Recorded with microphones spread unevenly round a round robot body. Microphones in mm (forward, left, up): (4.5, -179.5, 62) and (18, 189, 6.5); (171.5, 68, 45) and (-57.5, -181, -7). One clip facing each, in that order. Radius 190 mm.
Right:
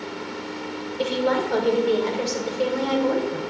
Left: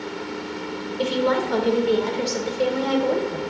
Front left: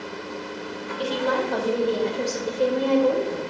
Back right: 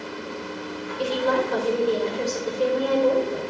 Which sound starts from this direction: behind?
A woman speaking, at 1.0 s.